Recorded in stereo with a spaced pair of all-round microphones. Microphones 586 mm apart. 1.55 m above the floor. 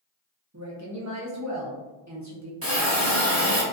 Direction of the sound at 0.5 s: 30° right (ahead or behind).